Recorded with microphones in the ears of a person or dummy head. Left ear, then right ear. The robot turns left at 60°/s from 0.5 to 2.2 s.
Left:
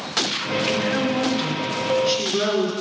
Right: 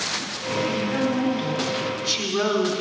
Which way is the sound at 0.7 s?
65° left.